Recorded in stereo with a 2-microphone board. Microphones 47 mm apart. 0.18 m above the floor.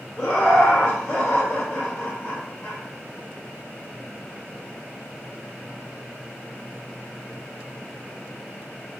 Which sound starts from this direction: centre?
Laughter, at 0.2 s.